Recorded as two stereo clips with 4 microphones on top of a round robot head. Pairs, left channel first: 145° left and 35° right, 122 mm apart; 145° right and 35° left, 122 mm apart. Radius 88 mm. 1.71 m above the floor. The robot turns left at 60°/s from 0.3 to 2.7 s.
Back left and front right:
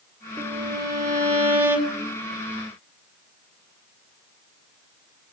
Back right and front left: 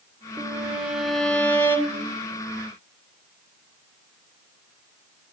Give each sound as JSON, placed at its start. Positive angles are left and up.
{"t": 0.4, "sound": "a violin", "azimuth_deg": -10, "distance_m": 1.6}